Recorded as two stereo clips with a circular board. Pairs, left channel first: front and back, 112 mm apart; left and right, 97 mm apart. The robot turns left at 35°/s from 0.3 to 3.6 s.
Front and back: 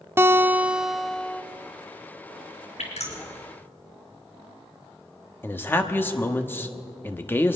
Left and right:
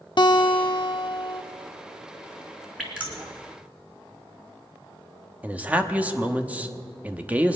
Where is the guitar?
115° left, 0.7 m; by 1.4 s 75° left, 0.7 m.